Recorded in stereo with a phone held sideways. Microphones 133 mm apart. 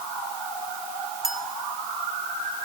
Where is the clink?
5° right (ahead or behind), 1.5 m.